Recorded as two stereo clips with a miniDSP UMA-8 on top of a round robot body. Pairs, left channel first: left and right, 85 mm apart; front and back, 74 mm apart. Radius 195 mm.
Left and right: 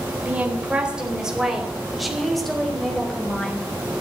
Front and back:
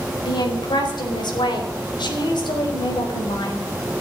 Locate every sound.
0.2 s a woman speaking: 15° right, 4 m; by 3.7 s 15° left, 5 m